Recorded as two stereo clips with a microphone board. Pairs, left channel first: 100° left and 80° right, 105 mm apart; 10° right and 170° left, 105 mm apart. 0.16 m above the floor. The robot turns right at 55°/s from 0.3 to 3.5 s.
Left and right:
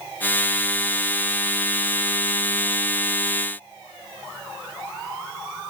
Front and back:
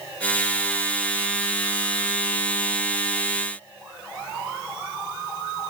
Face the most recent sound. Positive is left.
No sound to turn to.